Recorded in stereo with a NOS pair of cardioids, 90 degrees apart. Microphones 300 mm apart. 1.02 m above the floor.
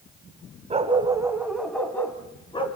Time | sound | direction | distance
0.7 | a dog barking | 20° right | 2 m